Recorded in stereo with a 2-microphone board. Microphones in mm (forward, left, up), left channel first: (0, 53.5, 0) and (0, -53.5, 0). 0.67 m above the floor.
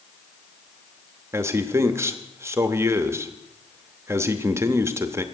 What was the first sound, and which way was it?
A man speaking, 25° right (ahead or behind).